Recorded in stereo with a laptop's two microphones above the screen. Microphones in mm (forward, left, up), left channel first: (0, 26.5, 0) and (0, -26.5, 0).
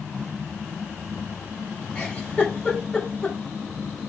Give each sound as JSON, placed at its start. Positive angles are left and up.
{"t": 1.9, "sound": "a giggle", "side_deg": 25, "distance_m": 2.5}